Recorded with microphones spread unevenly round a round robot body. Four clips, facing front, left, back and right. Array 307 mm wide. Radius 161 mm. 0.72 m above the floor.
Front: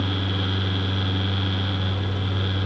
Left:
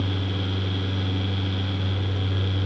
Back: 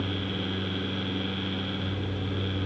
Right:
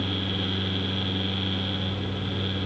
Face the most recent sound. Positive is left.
No sound to turn to.